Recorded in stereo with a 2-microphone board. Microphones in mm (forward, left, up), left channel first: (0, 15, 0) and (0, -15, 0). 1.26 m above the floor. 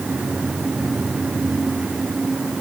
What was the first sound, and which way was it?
Only background noise.